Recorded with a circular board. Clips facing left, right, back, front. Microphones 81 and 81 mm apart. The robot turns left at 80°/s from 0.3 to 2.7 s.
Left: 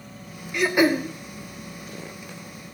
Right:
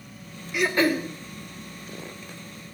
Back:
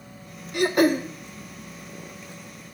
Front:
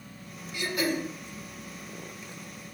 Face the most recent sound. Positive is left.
turn(degrees=10)